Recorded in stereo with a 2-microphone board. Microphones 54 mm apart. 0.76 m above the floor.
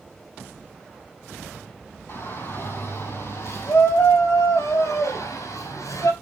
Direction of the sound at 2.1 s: 45° left (ahead or behind).